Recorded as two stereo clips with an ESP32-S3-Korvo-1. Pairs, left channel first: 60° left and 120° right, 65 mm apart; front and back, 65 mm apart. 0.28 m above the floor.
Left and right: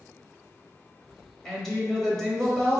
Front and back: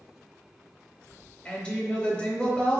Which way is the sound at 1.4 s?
20° right.